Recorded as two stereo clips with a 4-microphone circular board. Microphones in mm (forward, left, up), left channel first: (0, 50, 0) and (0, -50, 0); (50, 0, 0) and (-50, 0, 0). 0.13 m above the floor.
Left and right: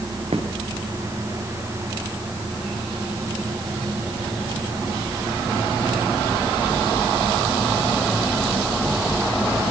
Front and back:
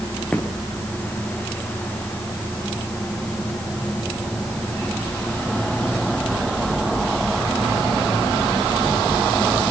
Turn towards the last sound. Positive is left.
turn(degrees=-75)